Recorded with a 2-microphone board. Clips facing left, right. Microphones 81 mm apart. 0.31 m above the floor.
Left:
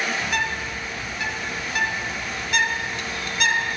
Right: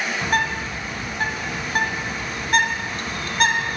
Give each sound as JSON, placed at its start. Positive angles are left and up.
{"t": 0.2, "sound": "a bird", "side_deg": -45, "distance_m": 1.1}